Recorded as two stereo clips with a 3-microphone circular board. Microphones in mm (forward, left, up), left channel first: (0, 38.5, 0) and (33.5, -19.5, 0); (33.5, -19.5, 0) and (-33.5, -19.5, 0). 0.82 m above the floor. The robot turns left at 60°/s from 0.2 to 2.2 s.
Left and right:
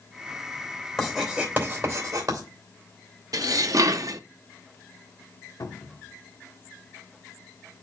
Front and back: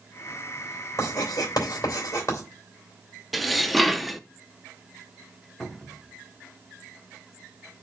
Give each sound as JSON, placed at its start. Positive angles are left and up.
{"t": 1.0, "sound": "writing", "azimuth_deg": 35, "distance_m": 2.5}
{"t": 3.3, "sound": "dishes clattering", "azimuth_deg": -90, "distance_m": 0.5}
{"t": 5.6, "sound": "a cupboard door", "azimuth_deg": 90, "distance_m": 1.3}